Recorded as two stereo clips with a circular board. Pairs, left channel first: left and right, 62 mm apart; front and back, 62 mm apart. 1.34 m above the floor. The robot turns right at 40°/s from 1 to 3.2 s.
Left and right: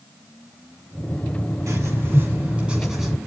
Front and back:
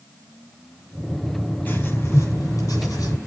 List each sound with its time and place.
1.7 s writing: 60° right, 7 m; by 3.2 s straight ahead, 7 m